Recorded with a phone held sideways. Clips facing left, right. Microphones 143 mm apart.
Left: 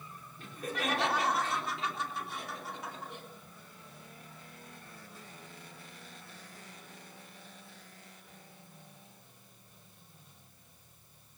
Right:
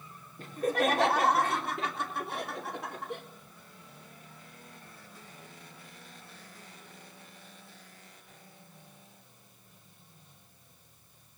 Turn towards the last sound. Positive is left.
turn(degrees=-70)  # may be behind; listen again after turning